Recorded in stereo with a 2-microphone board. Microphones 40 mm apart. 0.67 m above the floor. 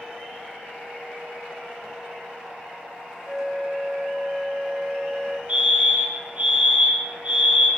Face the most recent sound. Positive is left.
turn(degrees=-40)  # may be behind; listen again after turning